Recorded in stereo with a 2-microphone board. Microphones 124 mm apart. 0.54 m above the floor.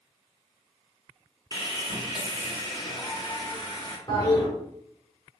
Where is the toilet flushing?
30° left (ahead or behind), 2.0 m.